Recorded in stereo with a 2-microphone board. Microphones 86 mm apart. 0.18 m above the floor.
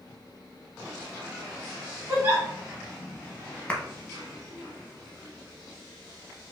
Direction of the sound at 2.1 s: 25° right (ahead or behind).